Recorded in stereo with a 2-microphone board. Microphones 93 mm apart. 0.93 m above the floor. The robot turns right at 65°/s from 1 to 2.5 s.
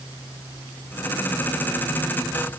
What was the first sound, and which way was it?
Only background noise.